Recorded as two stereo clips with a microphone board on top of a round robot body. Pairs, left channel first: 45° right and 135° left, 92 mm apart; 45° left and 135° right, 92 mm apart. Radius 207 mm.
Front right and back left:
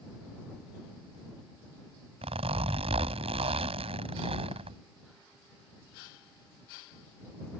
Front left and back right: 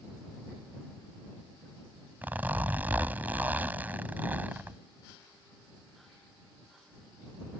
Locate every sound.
2.2 s a zipper: 150° left